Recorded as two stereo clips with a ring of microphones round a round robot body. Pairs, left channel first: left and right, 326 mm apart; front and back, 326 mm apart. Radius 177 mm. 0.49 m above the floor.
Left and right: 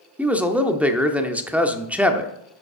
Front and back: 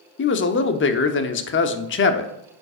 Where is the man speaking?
5° right, 0.8 m.